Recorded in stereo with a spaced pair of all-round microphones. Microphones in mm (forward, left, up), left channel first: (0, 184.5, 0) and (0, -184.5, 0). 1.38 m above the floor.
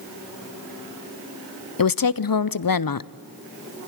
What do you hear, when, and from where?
1.8 s a woman speaking: 65° left (ahead or behind), 0.5 m